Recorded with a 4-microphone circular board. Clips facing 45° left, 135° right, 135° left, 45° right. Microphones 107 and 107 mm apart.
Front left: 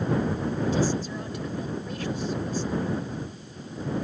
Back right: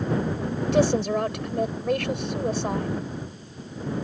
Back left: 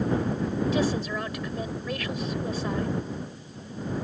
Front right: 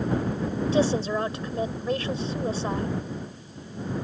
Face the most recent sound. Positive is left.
turn(degrees=-105)